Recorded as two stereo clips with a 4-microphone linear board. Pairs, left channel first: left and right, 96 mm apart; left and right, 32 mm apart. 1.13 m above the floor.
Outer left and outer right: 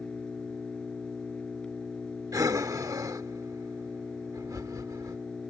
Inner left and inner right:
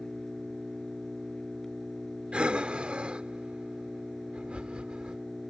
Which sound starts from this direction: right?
Breathing, at 2.3 s.